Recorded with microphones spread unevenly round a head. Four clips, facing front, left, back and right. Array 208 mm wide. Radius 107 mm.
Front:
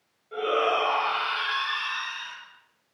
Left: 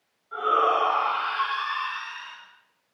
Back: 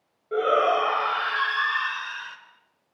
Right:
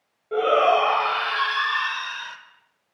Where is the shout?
125° right, 6 m; by 2.4 s 100° right, 4.5 m.